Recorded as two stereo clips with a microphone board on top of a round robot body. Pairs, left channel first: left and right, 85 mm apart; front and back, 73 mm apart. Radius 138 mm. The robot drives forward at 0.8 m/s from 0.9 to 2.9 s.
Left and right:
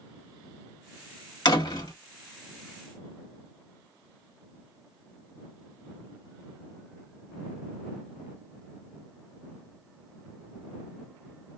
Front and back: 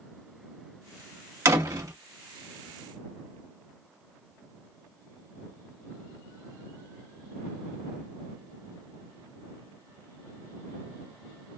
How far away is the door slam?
About 1.4 m.